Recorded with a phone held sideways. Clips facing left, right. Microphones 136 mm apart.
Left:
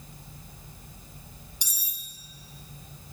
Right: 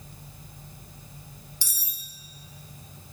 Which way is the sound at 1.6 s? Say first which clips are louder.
Right 1 dB; 20° left (ahead or behind).